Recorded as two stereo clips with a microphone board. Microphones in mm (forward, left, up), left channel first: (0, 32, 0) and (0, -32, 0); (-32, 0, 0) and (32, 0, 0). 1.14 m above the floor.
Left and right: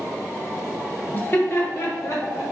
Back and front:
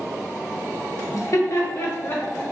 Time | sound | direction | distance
1.1 | laughter | 150° left | 1.1 m